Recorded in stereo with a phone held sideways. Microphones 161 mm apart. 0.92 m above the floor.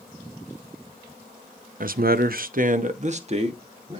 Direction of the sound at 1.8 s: 60° right (ahead or behind).